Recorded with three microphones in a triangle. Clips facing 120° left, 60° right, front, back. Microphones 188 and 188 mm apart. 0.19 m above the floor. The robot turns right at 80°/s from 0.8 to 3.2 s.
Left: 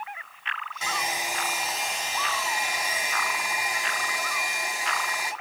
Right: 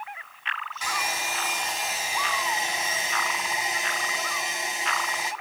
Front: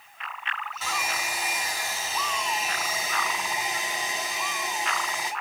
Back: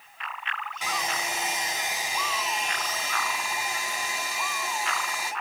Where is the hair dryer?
130° left, 1.7 m; by 5.3 s 35° right, 1.7 m.